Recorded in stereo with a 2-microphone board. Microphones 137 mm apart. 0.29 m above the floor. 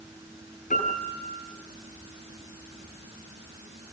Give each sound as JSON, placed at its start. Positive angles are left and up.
{"t": 0.7, "sound": "a piano", "side_deg": 70, "distance_m": 5.5}